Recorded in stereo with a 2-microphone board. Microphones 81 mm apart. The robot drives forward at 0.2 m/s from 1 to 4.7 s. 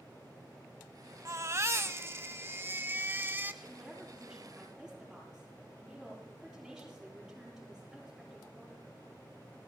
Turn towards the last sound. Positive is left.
turn(degrees=-5)  # may be behind; listen again after turning